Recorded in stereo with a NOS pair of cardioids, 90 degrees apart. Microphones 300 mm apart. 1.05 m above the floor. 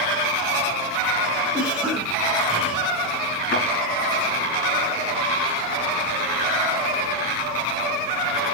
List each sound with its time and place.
1.5 s a cough: 5° right, 5.5 m
3.5 s a thud: 40° left, 6.5 m